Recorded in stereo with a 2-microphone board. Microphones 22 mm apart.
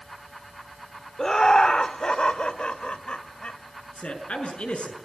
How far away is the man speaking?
About 6.5 m.